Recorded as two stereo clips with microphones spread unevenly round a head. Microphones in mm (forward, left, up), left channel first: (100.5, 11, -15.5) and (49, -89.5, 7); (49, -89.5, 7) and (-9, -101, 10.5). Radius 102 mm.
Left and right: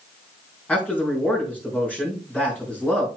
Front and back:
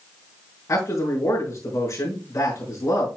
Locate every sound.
0.7 s a man speaking: 20° right, 4.5 m